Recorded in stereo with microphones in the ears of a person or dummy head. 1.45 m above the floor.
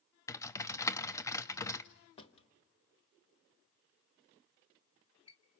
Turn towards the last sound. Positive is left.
turn(degrees=30)  # may be behind; listen again after turning